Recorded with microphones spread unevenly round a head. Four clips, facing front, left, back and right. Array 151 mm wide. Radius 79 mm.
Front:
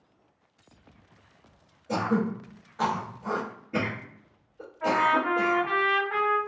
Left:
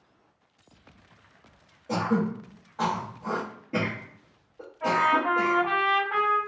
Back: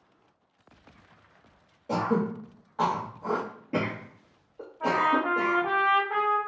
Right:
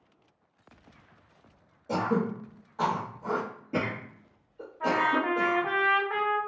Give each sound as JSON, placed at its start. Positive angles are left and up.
{"t": 1.9, "sound": "throat clearing", "azimuth_deg": -175, "distance_m": 0.9}
{"t": 4.8, "sound": "a trumpet", "azimuth_deg": -130, "distance_m": 1.3}